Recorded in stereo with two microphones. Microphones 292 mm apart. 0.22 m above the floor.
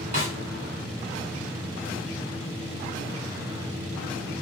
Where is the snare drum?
25° right (ahead or behind), 1.6 m.